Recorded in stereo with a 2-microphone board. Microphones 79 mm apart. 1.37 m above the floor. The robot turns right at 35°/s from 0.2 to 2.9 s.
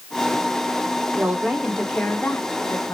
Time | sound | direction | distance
1.1 | a woman speaking | 20° right | 1.4 m